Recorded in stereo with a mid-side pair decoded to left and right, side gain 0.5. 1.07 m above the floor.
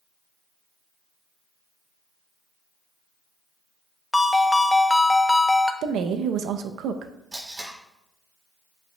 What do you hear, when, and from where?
4.1 s a ringtone: 15° left, 0.6 m
5.8 s a woman speaking: 70° right, 0.7 m
7.3 s tape being pulled: 25° right, 4 m